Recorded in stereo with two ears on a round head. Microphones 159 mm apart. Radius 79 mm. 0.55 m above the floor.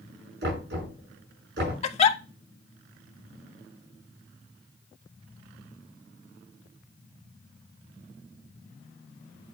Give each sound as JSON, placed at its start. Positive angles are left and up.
{"t": 0.4, "sound": "knocking", "side_deg": -65, "distance_m": 6.0}
{"t": 1.8, "sound": "a giggle", "side_deg": 35, "distance_m": 0.6}